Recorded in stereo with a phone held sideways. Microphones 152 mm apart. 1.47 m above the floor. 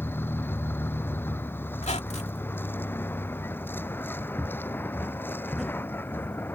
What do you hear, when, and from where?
0.0 s a vehicle: 15° left (ahead or behind)
1.8 s a squeak: 45° left (ahead or behind)
4.4 s footsteps: 15° right (ahead or behind); by 6.3 s 15° left (ahead or behind)